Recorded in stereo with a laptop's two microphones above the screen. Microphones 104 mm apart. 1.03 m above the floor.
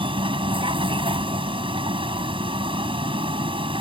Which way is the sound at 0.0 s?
60° right (ahead or behind).